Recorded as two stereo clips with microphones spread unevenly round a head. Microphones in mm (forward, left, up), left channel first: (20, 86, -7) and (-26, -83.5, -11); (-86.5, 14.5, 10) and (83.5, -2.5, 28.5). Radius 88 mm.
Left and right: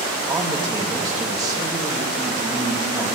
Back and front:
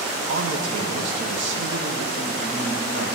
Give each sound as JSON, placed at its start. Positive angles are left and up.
{"t": 0.3, "sound": "a man speaking", "azimuth_deg": -30, "distance_m": 1.7}